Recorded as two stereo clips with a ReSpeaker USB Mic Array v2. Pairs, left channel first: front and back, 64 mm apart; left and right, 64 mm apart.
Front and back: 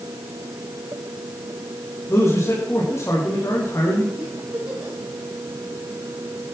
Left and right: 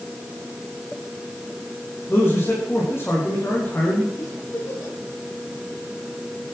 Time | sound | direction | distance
2.1 | a man speaking | 40° left | 6 m
4.2 | a giggle | 110° left | 7 m